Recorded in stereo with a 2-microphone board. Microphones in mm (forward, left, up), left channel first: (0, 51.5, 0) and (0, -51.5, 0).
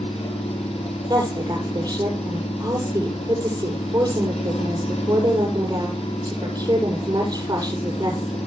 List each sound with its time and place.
0.0 s an engine running: 80° left, 6.5 m
1.1 s a woman speaking: 45° right (ahead or behind), 7 m